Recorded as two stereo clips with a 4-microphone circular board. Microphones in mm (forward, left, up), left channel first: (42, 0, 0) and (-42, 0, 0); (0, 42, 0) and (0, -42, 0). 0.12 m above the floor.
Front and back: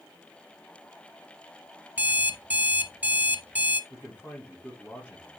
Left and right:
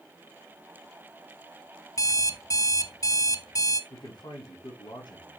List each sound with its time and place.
2.0 s an alarm clock: 115° left, 1.2 m
3.9 s a man speaking: 65° left, 6.5 m